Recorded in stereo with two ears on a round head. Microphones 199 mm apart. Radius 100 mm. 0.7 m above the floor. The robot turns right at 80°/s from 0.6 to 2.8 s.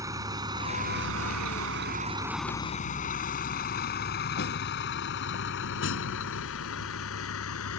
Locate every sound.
0.0 s a vehicle: 15° right (ahead or behind); by 7.8 s 70° left (ahead or behind)